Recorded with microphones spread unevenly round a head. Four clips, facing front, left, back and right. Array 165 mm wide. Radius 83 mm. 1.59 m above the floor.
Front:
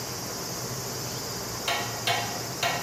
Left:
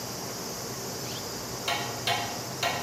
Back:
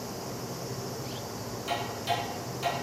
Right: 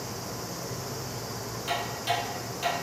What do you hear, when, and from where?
1.7 s ticking: 25° left, 1.2 m